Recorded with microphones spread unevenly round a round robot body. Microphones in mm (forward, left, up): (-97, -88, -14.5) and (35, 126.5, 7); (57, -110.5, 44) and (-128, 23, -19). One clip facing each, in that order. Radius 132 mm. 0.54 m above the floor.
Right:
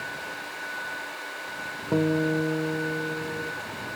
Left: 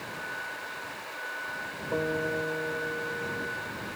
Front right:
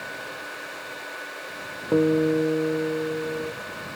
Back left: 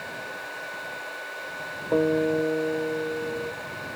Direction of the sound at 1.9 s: 100° right.